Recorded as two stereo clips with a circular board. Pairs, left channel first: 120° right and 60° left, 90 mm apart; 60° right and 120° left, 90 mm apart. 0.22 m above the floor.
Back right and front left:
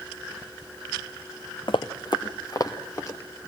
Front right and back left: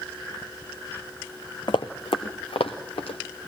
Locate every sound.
1.7 s running footsteps: 90° right, 1.1 m; by 3.2 s 65° right, 2.5 m